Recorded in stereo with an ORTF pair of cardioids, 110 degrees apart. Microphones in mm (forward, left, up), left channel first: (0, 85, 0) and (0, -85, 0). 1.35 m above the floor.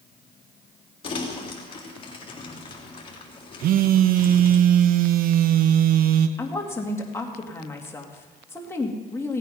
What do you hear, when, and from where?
1.0 s crumpling: 30° left, 3 m
3.6 s a phone buzzing: 60° right, 0.8 m
6.4 s a woman speaking: 15° left, 2.5 m